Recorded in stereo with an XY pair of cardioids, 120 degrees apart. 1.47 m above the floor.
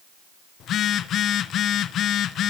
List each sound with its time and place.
0.6 s a phone buzzing: 60° left, 0.9 m